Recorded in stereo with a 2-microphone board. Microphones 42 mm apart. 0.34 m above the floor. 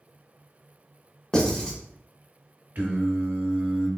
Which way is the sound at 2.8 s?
50° right (ahead or behind).